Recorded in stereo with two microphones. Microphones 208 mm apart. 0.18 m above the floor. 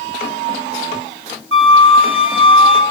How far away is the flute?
About 1.2 m.